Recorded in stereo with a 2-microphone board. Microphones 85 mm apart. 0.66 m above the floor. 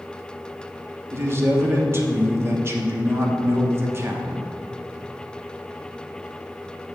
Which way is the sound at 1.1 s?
30° right (ahead or behind).